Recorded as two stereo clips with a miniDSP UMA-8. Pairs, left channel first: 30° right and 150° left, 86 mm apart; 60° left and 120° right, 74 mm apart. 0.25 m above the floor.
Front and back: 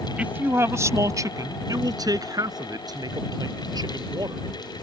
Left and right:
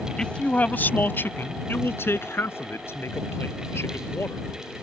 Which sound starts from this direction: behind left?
A man speaking, at 0.2 s.